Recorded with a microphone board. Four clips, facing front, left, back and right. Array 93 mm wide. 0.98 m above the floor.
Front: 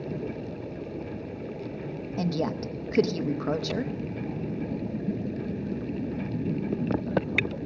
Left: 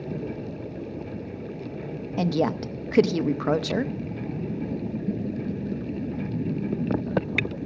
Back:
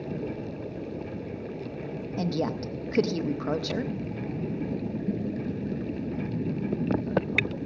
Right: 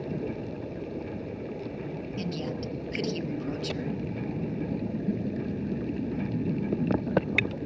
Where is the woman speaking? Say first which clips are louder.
Left 11 dB, even; 90° left, 0.7 m.